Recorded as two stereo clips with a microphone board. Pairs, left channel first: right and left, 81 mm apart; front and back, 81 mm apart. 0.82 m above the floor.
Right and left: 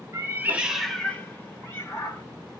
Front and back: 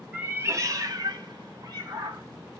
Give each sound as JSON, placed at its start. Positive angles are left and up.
{"t": 0.1, "sound": "a cat meowing", "azimuth_deg": 110, "distance_m": 0.5}